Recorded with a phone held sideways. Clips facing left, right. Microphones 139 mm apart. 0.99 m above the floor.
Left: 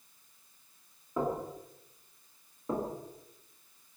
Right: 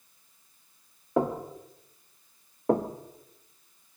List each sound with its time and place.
1.2 s knocking: 75° right (ahead or behind), 1.9 m
2.7 s knocking: 65° right (ahead or behind), 1.2 m